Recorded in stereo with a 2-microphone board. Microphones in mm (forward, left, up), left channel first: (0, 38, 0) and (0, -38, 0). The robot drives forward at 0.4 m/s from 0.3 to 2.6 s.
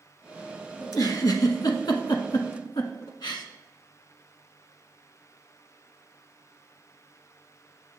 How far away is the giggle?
About 1.1 m.